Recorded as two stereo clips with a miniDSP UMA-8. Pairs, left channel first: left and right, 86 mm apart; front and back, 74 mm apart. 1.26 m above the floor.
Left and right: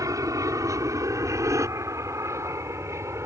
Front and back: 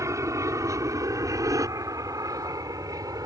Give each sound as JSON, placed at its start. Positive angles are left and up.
{"t": 0.0, "sound": "an aircraft", "azimuth_deg": -135}